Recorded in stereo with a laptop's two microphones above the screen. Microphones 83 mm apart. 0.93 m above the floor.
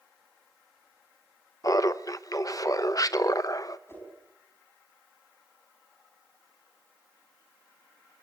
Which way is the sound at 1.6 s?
45° left (ahead or behind).